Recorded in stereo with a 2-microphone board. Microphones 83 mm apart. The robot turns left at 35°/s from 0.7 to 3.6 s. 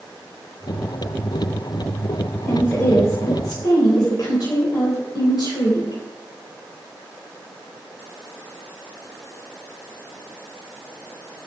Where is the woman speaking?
160° left, 3.5 m; by 6.0 s 125° left, 3.5 m.